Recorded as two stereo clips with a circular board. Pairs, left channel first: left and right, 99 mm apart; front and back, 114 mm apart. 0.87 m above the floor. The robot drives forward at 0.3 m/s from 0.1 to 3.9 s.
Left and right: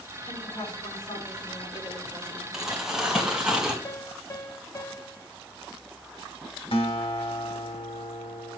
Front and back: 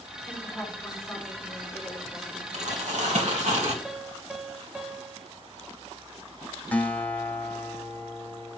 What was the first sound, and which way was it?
A woman speaking, 80° left.